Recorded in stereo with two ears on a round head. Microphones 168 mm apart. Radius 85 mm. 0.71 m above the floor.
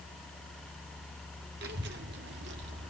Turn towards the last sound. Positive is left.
turn(degrees=-65)  # may be behind; listen again after turning